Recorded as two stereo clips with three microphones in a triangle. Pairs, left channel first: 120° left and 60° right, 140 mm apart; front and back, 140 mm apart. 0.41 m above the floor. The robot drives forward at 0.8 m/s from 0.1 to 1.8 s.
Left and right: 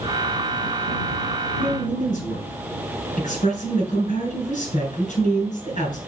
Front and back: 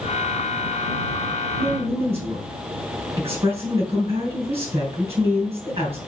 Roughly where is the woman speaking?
Behind left.